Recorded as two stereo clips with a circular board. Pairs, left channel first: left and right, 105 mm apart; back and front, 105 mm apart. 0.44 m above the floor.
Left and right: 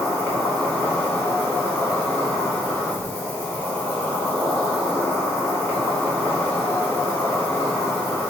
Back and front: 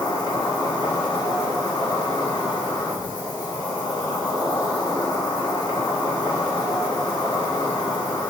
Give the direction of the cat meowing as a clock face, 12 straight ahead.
No cat meowing in this recording.